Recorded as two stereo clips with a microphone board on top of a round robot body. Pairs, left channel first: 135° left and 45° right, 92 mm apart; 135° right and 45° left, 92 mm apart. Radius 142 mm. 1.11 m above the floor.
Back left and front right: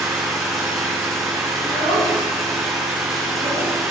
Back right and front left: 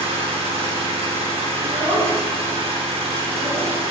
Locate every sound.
0.0 s an engine running: 40° left, 4 m
1.6 s a child speaking: 100° left, 4.5 m